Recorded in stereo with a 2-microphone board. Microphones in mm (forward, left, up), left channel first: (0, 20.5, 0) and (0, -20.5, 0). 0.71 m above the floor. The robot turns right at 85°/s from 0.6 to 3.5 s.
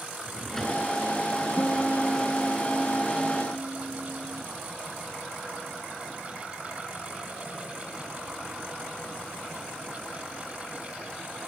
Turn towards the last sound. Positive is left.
turn(degrees=-75)